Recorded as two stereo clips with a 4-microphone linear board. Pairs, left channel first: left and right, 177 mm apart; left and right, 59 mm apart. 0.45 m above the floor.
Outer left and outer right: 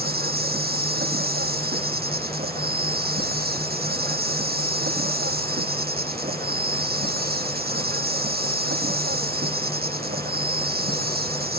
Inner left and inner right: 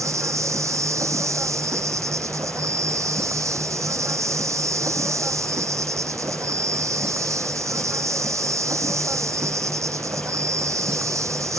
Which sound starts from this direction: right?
An insect, at 0.0 s.